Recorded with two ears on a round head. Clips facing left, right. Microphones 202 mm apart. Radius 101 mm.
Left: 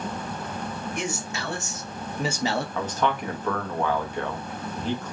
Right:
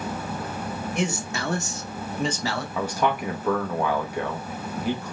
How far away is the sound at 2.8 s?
About 0.9 m.